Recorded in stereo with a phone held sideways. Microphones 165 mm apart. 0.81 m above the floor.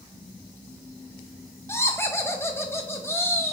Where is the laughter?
15° left (ahead or behind), 0.6 m.